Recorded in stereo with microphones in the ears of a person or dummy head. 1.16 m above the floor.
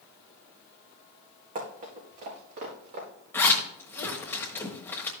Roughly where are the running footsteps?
Right.